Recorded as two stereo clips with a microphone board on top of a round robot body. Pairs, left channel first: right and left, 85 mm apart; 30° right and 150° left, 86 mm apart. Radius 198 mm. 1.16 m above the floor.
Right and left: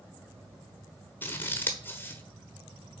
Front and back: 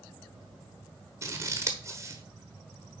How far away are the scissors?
About 1.2 m.